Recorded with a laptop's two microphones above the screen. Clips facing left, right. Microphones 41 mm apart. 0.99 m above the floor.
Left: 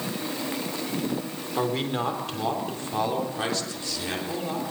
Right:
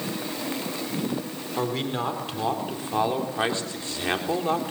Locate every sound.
1.6 s a man speaking: 5° left (ahead or behind), 3.5 m; by 4.7 s 40° right (ahead or behind), 3.5 m